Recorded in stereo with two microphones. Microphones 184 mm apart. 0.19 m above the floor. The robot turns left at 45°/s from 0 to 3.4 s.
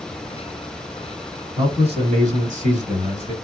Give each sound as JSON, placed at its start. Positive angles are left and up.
{"t": 1.6, "sound": "a man speaking", "azimuth_deg": -45, "distance_m": 1.6}